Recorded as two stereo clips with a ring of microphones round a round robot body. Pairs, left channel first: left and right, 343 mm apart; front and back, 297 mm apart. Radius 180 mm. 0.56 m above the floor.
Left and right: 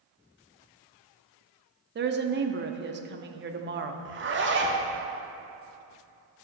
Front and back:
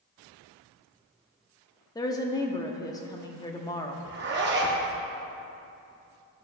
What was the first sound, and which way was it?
A woman speaking, 65° right.